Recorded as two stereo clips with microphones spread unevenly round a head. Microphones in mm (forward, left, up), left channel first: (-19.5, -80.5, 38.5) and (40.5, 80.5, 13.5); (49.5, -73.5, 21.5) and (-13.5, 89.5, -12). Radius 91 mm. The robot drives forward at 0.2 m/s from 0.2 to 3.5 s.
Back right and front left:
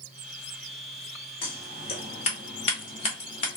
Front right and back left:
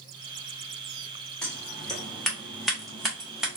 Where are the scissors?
135° right, 1.1 m; by 3.6 s 155° right, 1.3 m.